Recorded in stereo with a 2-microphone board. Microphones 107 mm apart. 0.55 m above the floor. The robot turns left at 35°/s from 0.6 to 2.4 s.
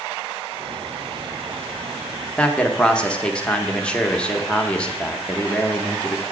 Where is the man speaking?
10° left (ahead or behind), 0.6 m.